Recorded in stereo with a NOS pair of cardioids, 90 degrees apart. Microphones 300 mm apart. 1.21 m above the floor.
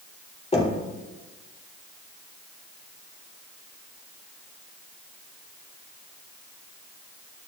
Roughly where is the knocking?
Ahead.